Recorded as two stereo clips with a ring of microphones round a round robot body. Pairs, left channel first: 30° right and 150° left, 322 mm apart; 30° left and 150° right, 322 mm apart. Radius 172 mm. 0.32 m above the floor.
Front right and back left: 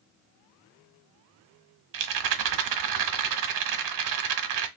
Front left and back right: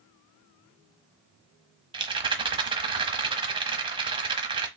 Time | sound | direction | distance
1.9 | a rattle | 135° left | 0.7 m